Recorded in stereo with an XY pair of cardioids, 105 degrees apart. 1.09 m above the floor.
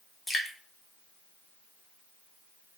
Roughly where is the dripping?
Ahead.